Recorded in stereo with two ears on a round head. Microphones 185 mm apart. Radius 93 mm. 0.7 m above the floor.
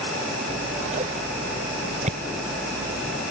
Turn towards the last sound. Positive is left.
turn(degrees=-35)  # may be behind; listen again after turning